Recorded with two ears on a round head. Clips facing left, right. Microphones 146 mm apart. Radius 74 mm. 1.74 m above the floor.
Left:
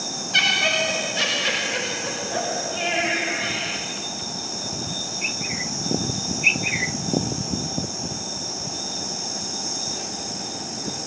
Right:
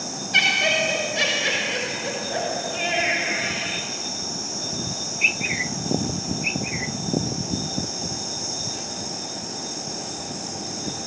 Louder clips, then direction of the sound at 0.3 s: Right 1 dB; 20° right (ahead or behind).